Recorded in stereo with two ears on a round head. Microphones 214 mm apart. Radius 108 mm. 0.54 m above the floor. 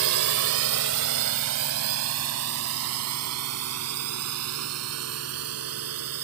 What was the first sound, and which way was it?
A drone, 60° right (ahead or behind).